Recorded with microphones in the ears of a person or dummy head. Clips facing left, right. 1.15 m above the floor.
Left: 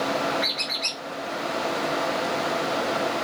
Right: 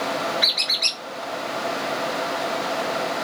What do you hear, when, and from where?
0.4 s a squeak: 45° right (ahead or behind), 0.9 m